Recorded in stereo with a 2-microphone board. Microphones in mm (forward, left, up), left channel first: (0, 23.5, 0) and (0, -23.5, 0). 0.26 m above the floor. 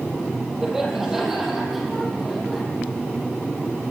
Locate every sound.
0.6 s laughter: 5° right (ahead or behind), 8 m; by 2.6 s centre (ahead or behind), 9.5 m